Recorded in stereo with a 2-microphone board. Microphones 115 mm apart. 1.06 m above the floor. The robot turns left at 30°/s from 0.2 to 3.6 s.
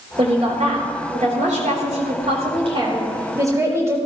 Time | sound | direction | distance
0.2 | a woman speaking | 55° right | 4.5 m